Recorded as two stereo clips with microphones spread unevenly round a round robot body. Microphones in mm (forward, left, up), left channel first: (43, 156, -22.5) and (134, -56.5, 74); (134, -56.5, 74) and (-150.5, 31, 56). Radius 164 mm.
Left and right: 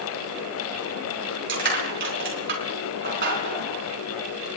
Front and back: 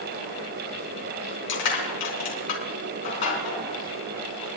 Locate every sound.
1.5 s crushing: 25° right, 4.5 m